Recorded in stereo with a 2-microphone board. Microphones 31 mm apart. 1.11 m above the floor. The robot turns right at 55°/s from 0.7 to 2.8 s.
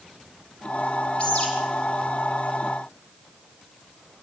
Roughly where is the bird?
Left.